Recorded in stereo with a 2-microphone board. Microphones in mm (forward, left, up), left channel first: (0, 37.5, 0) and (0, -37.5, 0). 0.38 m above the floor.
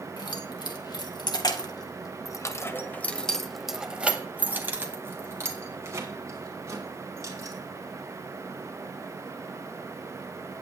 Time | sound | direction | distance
0.2 | keys jangling | 75° left (ahead or behind) | 2 m